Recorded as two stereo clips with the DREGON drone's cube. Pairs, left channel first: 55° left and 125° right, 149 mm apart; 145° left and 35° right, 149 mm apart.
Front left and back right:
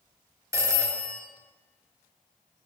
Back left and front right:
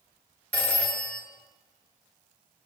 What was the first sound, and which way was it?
A phone ringing, 150° right.